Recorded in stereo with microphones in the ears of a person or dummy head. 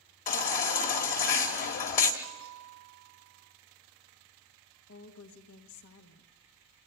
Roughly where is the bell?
Right.